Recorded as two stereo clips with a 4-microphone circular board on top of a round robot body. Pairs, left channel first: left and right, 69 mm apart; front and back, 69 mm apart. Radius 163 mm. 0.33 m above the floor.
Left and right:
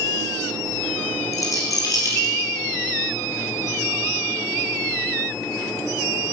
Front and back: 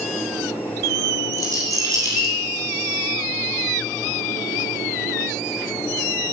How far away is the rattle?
About 3 m.